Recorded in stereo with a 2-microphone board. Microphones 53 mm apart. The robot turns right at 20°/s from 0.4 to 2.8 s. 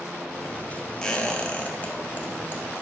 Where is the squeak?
15° left (ahead or behind), 0.7 m; by 2.6 s 45° left (ahead or behind), 0.7 m.